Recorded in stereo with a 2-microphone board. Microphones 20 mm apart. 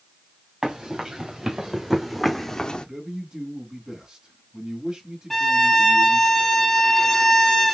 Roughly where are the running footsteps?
Right.